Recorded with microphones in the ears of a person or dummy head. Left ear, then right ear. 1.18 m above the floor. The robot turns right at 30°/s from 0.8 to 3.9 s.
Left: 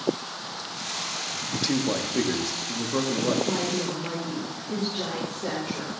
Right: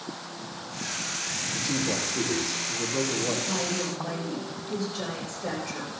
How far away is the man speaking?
About 1.6 m.